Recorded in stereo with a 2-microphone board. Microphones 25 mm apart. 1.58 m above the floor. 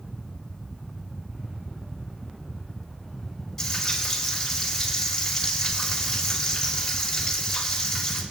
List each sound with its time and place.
3.6 s frying: 15° left (ahead or behind), 3.5 m